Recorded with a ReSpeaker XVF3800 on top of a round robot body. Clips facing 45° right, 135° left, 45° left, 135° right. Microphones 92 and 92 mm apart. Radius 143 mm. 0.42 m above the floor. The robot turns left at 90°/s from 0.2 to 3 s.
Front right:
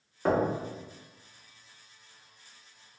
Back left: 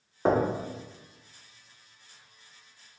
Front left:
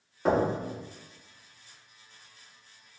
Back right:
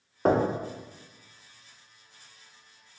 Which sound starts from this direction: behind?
Knocking, at 0.2 s.